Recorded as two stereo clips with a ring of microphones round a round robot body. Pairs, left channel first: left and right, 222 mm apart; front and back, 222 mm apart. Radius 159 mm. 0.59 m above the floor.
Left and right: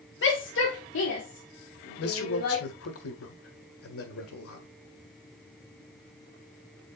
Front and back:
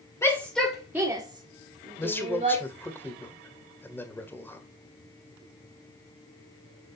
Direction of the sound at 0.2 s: 75° left.